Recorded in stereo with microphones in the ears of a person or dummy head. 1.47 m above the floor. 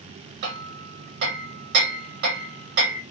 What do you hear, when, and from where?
0.4 s hammering: 60° right (ahead or behind), 2 m